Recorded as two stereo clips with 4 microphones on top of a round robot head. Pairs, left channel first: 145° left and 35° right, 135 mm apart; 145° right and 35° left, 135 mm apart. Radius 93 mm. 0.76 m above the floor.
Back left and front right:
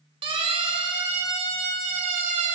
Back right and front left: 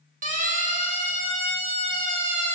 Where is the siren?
15° left, 5 m; by 2.6 s 5° right, 5 m.